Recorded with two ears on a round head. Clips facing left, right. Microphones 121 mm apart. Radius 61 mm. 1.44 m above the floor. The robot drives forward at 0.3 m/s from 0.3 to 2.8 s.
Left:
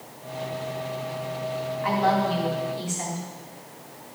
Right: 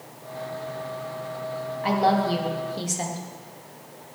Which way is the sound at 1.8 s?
40° right (ahead or behind).